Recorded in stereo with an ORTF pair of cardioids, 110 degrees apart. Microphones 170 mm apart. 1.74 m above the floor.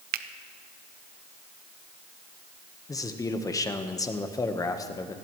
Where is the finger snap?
65° right, 0.7 m.